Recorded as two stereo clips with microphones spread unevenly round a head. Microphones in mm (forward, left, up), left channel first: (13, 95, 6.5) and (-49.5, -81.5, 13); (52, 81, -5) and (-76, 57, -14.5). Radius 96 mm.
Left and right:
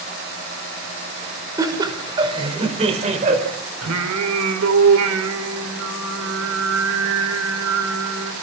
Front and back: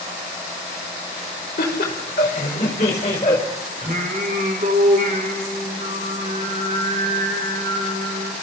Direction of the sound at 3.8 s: 115° right.